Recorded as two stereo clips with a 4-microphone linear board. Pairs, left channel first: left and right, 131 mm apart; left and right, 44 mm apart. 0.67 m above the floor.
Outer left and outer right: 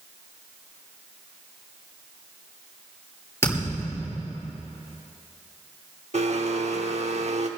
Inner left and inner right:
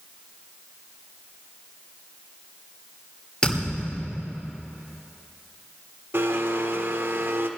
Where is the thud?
20° left (ahead or behind), 6.5 m.